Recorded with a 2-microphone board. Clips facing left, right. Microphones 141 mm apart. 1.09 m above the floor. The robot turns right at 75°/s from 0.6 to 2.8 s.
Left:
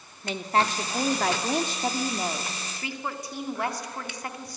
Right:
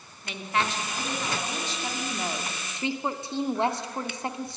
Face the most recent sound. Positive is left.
turn(degrees=-155)